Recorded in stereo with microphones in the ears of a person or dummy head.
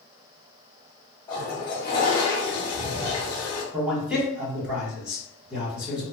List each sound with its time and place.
1.3 s a toilet flushing: 20° left (ahead or behind), 0.8 m
3.7 s a man speaking: 10° right (ahead or behind), 1.7 m